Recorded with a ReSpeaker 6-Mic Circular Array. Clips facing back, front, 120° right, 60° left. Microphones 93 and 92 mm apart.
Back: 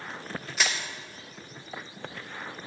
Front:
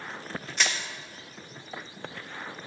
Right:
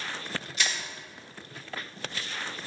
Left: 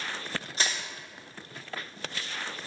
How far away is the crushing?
About 0.9 m.